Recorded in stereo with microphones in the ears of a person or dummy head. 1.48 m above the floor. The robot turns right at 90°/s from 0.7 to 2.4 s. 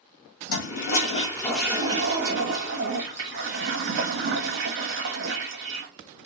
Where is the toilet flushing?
105° left, 0.9 m; by 5.9 s 100° right, 0.9 m.